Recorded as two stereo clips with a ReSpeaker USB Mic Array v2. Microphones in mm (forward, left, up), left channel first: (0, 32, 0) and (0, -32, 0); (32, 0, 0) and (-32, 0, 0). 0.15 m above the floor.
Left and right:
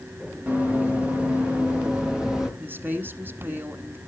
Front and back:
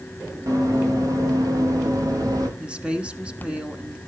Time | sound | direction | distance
0.5 | running footsteps | 160° right | 4 m
2.6 | a woman speaking | 120° right | 1.3 m